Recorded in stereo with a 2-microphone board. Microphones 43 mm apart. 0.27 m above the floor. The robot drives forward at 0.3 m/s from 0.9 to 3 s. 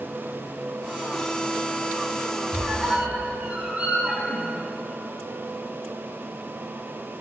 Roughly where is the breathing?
I don't hear breathing.